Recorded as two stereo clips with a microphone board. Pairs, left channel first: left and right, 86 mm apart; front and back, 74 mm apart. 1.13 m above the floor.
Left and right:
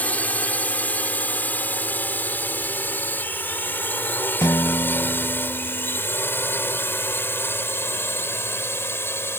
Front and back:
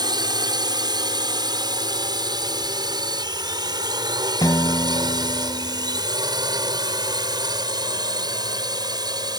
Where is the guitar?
40° left.